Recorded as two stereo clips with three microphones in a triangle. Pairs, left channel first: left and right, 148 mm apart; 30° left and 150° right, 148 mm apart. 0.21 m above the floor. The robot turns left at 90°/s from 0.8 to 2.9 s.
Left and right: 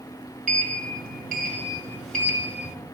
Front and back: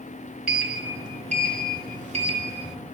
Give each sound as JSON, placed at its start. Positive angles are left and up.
{"t": 0.5, "sound": "a sliding door", "azimuth_deg": -65, "distance_m": 0.6}